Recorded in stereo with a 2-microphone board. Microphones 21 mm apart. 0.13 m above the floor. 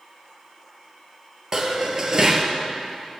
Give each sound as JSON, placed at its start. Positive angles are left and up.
{"t": 1.5, "sound": "dishes clattering", "side_deg": -30, "distance_m": 1.9}